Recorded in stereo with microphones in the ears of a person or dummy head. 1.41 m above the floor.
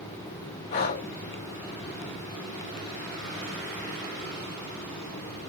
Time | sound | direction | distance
0.7 | breathing | 25° left (ahead or behind) | 0.7 m